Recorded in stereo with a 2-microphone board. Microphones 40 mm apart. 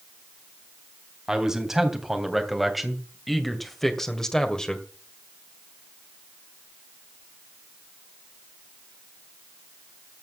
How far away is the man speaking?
About 3 m.